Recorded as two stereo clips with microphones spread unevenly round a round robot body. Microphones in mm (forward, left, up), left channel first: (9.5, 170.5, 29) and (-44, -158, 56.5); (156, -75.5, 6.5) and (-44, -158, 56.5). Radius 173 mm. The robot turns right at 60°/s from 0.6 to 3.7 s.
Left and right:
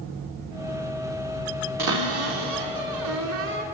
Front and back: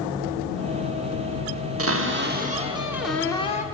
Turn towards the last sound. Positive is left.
turn(degrees=-30)